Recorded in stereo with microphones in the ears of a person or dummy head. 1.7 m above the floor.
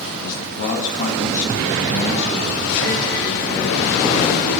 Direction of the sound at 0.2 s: 45° left (ahead or behind).